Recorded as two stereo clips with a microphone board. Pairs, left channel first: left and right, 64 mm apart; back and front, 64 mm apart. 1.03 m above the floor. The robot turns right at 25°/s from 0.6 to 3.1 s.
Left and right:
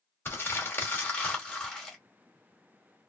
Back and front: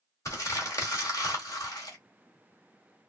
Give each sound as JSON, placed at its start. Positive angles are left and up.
{"t": 0.2, "sound": "crumpling", "azimuth_deg": 140, "distance_m": 1.9}